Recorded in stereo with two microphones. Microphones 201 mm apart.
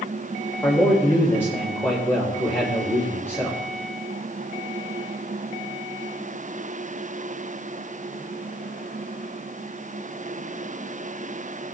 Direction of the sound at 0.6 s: 10° left (ahead or behind).